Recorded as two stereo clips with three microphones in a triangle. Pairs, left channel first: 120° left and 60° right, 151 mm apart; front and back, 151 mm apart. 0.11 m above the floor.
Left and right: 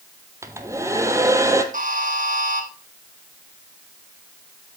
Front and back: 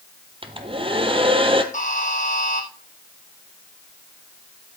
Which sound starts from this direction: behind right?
A hair dryer, at 0.4 s.